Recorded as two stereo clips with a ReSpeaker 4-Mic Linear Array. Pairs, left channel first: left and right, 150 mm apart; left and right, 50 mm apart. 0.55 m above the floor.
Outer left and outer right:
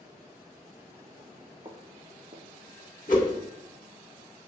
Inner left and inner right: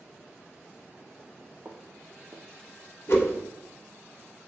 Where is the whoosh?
60° left (ahead or behind), 0.7 m.